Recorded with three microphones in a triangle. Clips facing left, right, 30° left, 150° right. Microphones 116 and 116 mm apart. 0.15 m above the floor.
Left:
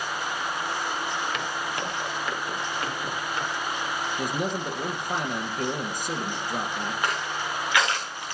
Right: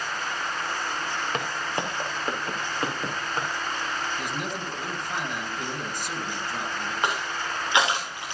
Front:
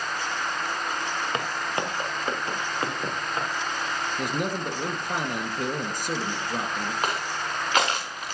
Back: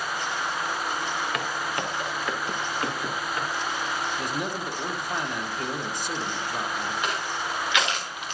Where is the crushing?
20° right, 3 m.